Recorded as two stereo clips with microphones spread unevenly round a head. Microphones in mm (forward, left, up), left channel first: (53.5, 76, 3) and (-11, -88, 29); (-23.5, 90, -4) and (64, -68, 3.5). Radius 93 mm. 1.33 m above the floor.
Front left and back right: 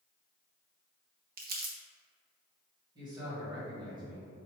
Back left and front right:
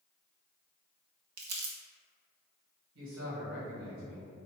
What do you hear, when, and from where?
1.4 s crumpling: 70° right, 0.9 m
3.0 s a man speaking: 45° right, 1.4 m